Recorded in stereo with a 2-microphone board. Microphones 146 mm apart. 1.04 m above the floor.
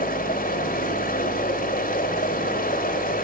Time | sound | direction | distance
0.0 | running water | 90° left | 3.5 m